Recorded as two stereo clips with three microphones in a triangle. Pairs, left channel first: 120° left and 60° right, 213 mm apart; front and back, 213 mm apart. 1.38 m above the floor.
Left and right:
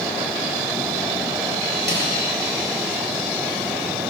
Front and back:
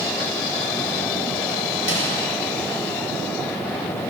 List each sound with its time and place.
1.9 s a snare drum: 20° right, 7.5 m